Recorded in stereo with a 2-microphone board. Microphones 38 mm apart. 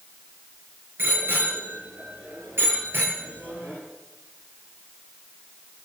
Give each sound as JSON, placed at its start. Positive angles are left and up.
{"t": 1.0, "sound": "a bicycle bell", "side_deg": -80, "distance_m": 4.5}